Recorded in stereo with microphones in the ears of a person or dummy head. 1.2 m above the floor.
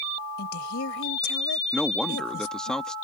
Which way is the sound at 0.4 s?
70° left (ahead or behind).